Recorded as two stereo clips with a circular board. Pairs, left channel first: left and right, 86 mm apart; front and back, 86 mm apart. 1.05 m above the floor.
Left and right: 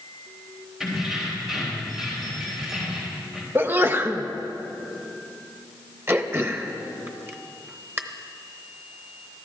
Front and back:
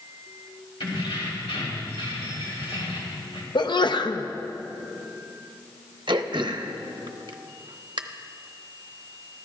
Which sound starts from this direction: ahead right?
A sneeze, at 3.5 s.